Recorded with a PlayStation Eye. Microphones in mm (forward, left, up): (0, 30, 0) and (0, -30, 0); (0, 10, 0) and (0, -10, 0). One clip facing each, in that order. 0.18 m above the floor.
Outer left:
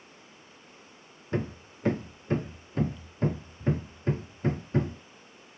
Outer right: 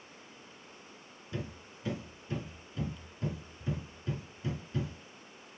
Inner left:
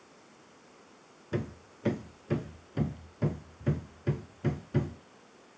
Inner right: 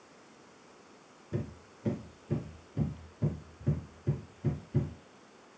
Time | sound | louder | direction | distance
1.3 | hammering | outer left 9 dB, inner left 4 dB | 50° left (ahead or behind) | 1.8 m